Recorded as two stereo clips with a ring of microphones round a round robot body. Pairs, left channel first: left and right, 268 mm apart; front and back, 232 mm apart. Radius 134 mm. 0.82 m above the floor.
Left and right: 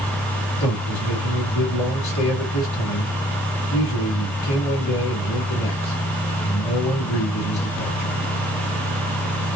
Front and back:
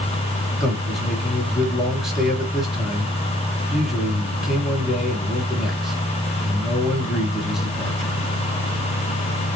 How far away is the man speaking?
About 1.7 m.